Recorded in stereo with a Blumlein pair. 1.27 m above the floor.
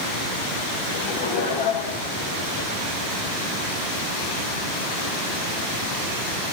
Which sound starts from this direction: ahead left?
Laughter, at 0.9 s.